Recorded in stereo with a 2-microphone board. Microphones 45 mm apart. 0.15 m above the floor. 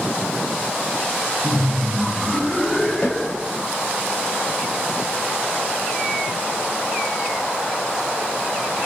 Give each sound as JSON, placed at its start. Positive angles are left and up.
{"t": 1.4, "sound": "laughter", "side_deg": -20, "distance_m": 1.3}
{"t": 3.0, "sound": "a snare drum", "side_deg": 45, "distance_m": 3.5}